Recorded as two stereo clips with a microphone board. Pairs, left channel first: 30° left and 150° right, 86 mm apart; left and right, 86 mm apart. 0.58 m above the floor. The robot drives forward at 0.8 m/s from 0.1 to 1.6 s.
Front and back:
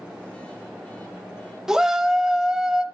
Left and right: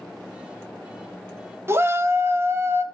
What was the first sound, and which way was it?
A shout, 70° right.